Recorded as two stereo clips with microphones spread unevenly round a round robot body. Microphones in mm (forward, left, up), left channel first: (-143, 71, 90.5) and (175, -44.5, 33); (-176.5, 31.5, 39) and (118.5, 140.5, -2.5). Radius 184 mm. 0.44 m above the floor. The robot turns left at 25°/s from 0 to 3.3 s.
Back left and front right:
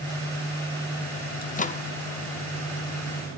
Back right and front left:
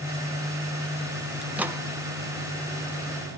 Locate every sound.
1.4 s a microwave: 95° left, 0.7 m; by 1.8 s 85° left, 0.7 m